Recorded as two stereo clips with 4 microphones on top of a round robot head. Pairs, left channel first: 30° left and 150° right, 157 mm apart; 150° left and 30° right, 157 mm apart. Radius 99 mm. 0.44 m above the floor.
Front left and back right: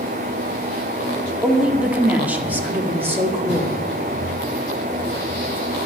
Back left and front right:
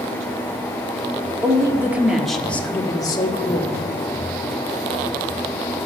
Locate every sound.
1.4 s a woman speaking: 70° right, 1.2 m; by 3.7 s 145° left, 1.3 m